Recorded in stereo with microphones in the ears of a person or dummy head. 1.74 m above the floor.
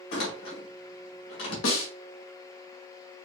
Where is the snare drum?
75° left (ahead or behind), 1.4 m.